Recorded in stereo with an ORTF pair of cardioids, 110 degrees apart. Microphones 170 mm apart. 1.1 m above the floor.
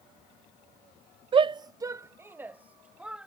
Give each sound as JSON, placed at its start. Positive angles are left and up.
{"t": 1.3, "sound": "a shout", "azimuth_deg": -35}